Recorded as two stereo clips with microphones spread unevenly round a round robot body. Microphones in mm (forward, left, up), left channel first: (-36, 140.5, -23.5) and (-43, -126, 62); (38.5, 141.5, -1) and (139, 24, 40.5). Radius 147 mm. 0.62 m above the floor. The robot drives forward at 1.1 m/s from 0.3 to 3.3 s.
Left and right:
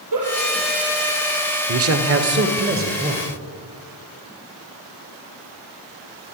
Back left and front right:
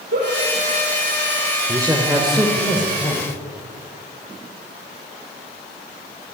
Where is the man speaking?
130° right, 1.9 m; by 3.3 s 155° right, 3.5 m.